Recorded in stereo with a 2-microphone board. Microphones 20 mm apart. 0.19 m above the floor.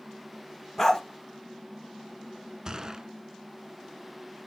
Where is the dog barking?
15° left (ahead or behind), 2 m.